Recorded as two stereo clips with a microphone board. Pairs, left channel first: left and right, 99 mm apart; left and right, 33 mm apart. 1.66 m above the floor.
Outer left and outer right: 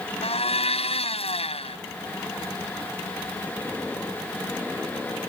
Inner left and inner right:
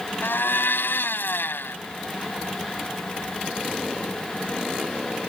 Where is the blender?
85° left.